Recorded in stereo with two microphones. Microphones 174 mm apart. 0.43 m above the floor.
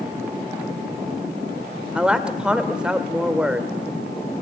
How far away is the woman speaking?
About 1.6 m.